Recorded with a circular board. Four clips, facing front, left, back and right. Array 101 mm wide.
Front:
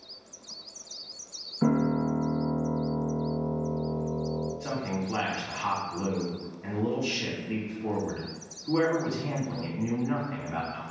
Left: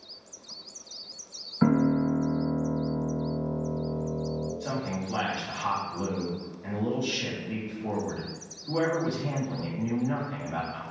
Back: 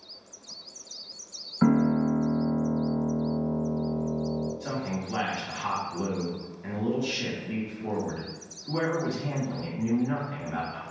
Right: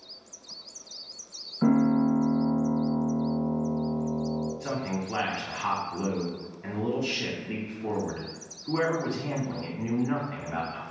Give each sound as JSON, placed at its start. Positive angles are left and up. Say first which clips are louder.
{"t": 1.6, "sound": "a piano", "louder": "right 1 dB, back 3 dB", "azimuth_deg": 130, "distance_m": 1.4}
{"t": 4.6, "sound": "a man speaking", "louder": "right 1 dB, even", "azimuth_deg": -55, "distance_m": 1.5}